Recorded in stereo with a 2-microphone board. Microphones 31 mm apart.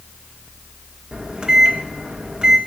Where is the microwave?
30° right (ahead or behind), 1.9 m.